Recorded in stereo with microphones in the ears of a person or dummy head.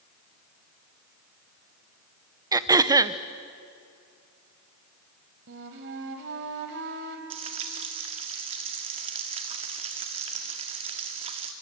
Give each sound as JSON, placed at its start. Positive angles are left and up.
{"t": 2.5, "sound": "throat clearing", "side_deg": -20, "distance_m": 0.6}
{"t": 5.5, "sound": "a flute", "side_deg": -60, "distance_m": 2.5}
{"t": 7.3, "sound": "frying", "side_deg": -35, "distance_m": 1.5}